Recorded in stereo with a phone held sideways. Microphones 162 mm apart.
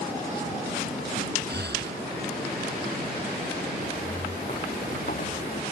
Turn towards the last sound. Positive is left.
turn(degrees=65)  # may be behind; listen again after turning